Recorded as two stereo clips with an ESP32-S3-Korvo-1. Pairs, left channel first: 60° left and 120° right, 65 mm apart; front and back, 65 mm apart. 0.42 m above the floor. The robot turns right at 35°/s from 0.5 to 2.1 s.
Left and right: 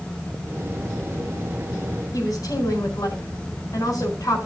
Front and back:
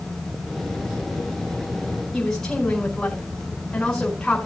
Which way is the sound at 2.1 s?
80° left.